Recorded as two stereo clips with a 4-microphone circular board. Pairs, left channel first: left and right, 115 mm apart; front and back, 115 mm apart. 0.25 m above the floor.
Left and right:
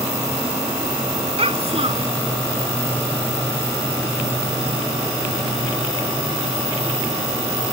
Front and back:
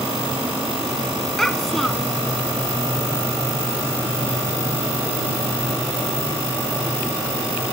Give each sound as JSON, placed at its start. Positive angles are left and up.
{"t": 1.4, "sound": "a child speaking", "azimuth_deg": -85}